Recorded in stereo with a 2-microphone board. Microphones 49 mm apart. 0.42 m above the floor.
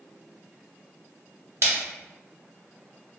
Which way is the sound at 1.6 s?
70° right (ahead or behind).